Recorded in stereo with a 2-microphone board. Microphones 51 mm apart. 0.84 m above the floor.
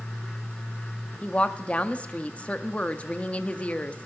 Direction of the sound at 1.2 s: 25° left (ahead or behind).